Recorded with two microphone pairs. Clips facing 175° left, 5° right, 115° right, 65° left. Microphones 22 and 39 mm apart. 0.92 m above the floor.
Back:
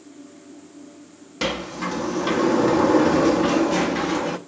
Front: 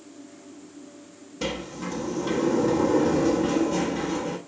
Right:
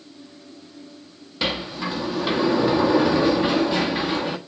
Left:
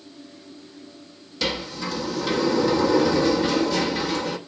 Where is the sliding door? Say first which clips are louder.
Back 5 dB, right 1 dB; straight behind, 1.1 m.